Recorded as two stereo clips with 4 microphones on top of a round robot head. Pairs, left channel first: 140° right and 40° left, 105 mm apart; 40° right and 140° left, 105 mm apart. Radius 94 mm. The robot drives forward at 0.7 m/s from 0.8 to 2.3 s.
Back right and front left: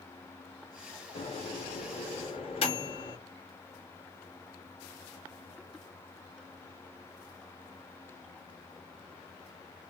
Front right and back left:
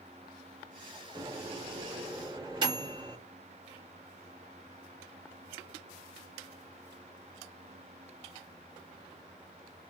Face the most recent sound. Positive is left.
turn(degrees=-170)